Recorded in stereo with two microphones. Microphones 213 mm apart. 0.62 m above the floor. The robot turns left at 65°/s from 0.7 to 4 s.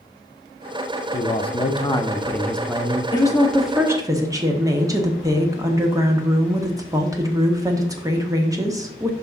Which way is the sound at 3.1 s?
35° left.